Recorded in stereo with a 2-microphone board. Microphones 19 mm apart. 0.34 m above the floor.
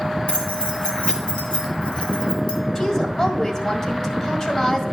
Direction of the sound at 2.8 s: 30° left (ahead or behind).